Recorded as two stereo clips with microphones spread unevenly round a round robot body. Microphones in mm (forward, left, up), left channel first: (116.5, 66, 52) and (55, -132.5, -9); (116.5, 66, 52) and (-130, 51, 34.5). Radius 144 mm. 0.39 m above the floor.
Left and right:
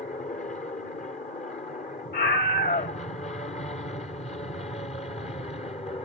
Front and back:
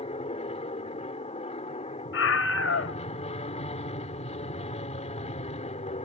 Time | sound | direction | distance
0.0 | an aircraft | 35° left | ?
2.1 | a scream | 25° left | ?